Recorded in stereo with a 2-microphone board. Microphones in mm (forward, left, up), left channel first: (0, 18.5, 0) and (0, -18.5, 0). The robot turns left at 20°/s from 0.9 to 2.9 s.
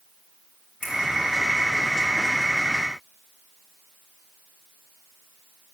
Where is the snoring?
No snoring in this recording.